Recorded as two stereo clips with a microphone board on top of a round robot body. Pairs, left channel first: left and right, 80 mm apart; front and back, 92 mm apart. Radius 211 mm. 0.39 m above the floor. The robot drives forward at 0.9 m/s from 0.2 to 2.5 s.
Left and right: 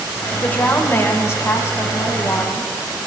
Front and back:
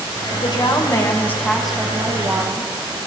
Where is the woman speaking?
20° left, 1.6 m; by 2.7 s 150° left, 1.3 m.